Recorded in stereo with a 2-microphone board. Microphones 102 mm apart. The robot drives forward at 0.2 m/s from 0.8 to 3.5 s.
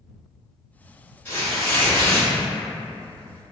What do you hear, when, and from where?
1.2 s tearing paper: 20° left (ahead or behind), 1.5 m